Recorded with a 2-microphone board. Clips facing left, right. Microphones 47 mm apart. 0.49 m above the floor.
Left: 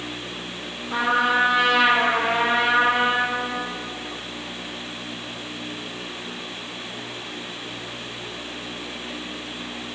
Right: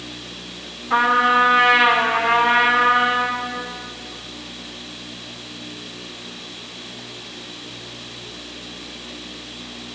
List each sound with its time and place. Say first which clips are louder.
0.9 s a trumpet: right 5 dB; 75° right (ahead or behind), 3.5 m